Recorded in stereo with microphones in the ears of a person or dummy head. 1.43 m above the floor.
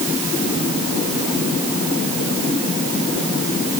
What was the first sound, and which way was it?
Only background noise.